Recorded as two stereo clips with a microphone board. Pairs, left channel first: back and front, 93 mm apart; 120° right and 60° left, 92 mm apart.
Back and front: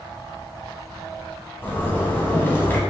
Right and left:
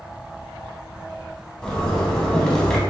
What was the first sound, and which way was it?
A zipper, 170° left.